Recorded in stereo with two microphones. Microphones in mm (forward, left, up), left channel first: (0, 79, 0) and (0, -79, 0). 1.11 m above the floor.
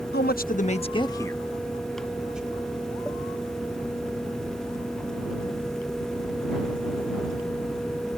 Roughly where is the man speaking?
Left.